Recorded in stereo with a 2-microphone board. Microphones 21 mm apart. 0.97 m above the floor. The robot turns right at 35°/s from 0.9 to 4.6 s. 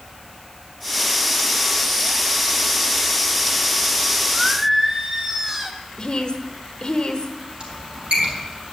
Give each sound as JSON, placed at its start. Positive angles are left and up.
{"t": 4.3, "sound": "singing", "side_deg": -20, "distance_m": 1.1}
{"t": 6.0, "sound": "a woman speaking", "side_deg": 50, "distance_m": 1.0}
{"t": 7.6, "sound": "a squeak", "side_deg": -65, "distance_m": 4.0}